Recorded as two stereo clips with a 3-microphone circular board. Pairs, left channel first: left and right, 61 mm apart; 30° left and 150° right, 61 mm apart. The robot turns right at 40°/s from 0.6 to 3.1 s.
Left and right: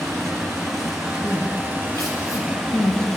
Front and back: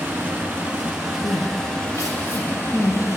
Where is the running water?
90° right, 2.5 m; by 3.2 s 10° left, 2.5 m.